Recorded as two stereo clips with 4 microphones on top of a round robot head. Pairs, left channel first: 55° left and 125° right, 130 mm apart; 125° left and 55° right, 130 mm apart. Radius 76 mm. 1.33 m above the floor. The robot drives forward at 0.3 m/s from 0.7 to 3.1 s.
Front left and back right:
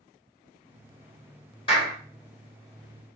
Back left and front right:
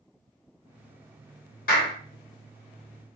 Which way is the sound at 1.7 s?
105° left.